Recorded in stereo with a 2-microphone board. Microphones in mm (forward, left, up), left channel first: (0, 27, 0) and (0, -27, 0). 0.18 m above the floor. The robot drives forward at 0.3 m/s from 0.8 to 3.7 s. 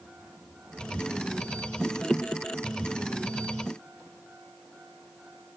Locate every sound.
Only background noise.